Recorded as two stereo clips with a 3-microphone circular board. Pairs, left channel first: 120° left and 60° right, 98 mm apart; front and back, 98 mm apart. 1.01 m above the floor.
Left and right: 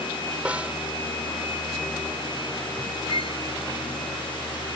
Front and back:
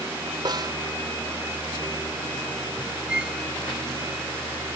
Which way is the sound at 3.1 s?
100° left.